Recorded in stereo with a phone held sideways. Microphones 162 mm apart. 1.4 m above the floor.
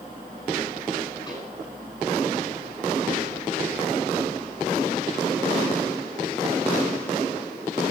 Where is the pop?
25° left (ahead or behind), 7.5 m.